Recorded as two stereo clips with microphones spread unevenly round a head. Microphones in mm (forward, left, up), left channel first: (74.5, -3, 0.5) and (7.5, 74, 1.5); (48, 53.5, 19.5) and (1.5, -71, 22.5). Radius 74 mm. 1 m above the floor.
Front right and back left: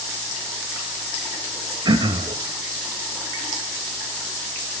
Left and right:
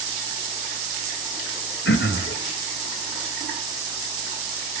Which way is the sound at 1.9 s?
85° left.